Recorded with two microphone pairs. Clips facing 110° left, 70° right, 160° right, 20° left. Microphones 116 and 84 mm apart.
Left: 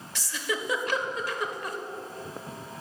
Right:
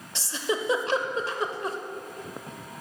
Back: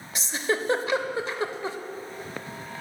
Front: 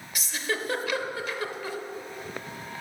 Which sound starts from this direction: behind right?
A giggle, at 0.1 s.